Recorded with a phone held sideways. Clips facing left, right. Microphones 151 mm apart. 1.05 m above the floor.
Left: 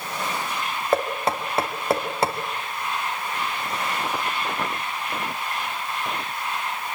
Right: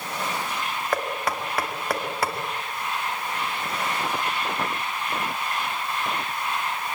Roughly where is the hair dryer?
I don't hear a hair dryer.